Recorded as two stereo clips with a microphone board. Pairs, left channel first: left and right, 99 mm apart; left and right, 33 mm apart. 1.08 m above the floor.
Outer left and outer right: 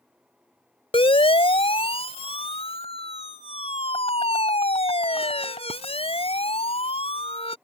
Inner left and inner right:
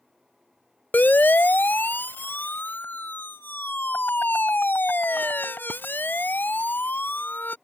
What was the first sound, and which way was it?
A siren, 75° left (ahead or behind).